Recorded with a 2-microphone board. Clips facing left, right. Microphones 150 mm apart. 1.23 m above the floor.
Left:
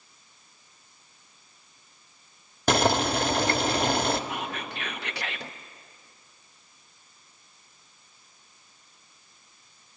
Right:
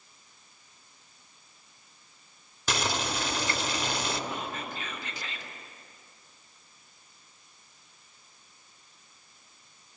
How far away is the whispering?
About 1.1 m.